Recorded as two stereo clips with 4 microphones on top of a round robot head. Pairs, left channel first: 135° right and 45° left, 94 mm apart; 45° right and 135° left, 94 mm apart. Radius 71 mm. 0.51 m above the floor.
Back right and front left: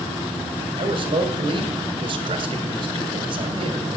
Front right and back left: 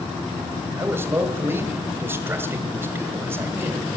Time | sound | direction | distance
0.8 | a man speaking | 70° left | 2.5 m